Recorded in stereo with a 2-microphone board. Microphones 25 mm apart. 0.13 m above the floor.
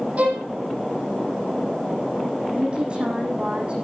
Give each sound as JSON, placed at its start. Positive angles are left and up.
{"t": 0.2, "sound": "a violin", "side_deg": -75, "distance_m": 5.0}
{"t": 2.5, "sound": "a woman speaking", "side_deg": -40, "distance_m": 7.5}